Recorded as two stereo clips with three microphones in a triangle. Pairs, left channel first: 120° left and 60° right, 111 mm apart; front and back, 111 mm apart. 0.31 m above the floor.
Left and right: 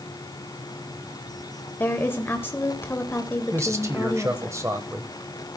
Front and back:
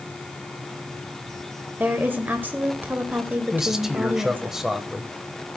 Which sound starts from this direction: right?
A man speaking, at 3.5 s.